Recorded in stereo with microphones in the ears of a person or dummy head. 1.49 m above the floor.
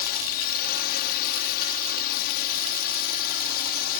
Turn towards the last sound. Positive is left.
turn(degrees=50)  # may be behind; listen again after turning